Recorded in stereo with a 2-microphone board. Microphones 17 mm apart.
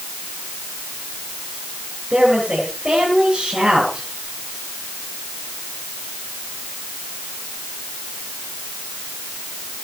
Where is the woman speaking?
85° right, 8 m.